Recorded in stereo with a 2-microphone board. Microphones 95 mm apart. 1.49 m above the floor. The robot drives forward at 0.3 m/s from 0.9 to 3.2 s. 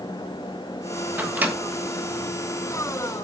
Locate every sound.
1.2 s a microwave: 20° right (ahead or behind), 1.3 m